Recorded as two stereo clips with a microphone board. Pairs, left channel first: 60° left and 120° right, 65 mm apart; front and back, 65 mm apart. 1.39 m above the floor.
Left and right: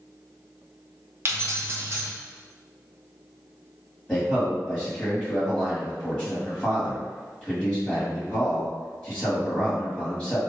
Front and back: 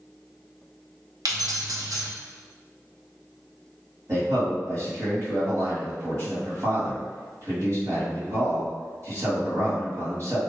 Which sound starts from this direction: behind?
Keys jangling, at 1.2 s.